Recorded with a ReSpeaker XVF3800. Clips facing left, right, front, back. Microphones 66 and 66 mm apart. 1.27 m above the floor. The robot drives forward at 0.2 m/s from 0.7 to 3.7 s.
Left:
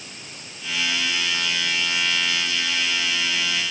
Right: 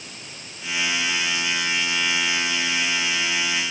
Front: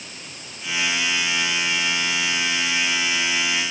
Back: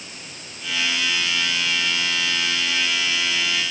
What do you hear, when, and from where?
Only background noise.